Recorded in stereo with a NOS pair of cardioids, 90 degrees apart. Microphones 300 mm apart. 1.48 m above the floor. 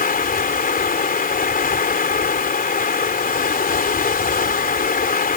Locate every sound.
0.0 s running water: 30° left